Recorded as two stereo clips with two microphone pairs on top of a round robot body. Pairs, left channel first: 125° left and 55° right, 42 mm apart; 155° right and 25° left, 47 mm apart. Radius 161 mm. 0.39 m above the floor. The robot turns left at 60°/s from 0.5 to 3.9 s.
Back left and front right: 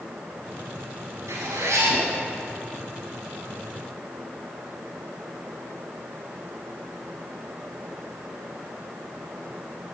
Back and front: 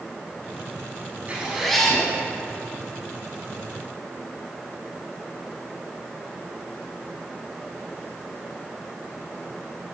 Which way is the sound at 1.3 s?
40° right.